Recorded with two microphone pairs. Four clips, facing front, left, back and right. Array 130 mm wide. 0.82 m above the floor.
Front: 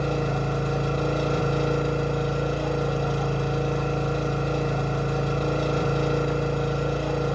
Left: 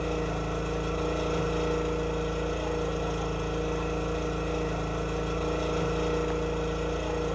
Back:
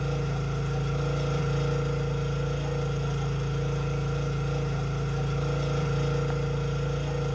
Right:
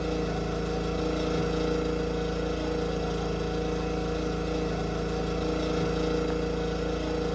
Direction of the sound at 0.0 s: 10° left.